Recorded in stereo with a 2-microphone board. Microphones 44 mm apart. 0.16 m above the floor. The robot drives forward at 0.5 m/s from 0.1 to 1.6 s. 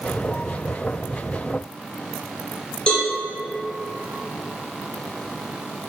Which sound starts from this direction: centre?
A cowbell, at 2.9 s.